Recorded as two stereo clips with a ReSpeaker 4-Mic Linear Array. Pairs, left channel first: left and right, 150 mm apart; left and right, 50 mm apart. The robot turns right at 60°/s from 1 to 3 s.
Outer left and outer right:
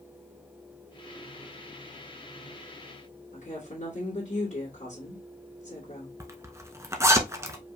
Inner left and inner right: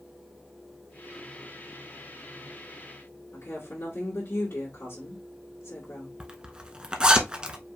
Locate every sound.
3.3 s a woman speaking: 55° left (ahead or behind), 2.5 m
6.2 s a zipper: 20° right (ahead or behind), 0.8 m